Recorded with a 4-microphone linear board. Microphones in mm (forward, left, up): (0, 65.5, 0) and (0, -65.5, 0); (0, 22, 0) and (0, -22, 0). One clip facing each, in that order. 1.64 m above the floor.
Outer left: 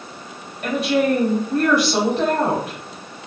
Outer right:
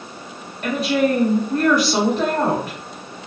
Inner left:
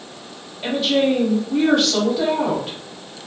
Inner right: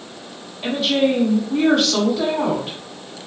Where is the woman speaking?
Centre (ahead or behind), 1.0 m.